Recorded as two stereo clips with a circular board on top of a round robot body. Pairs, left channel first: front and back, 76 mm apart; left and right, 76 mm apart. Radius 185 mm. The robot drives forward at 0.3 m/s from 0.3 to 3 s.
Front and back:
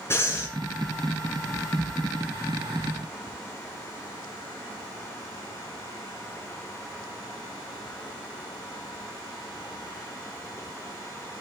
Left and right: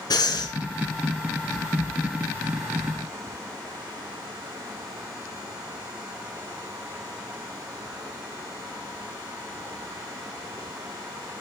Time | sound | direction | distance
0.1 | breathing | 60° left | 4.5 m